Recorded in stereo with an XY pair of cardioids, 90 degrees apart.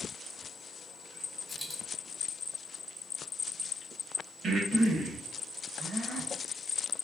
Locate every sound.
1.5 s a dropped coin: 15° left, 1.4 m
4.4 s breathing: 55° right, 1.1 m